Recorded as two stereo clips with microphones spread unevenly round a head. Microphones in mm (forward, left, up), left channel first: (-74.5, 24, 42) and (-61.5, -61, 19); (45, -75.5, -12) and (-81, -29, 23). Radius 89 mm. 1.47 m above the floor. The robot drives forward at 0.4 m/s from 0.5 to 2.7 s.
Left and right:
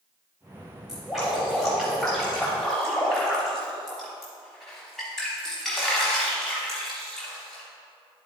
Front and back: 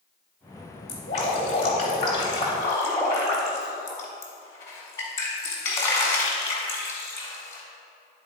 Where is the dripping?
20° left, 1.4 m; by 7.6 s 60° left, 1.0 m.